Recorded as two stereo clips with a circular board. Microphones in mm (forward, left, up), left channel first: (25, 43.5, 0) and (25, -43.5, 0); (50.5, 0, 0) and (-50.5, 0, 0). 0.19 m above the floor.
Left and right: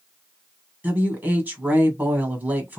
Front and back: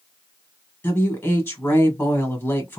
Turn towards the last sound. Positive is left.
turn(degrees=-45)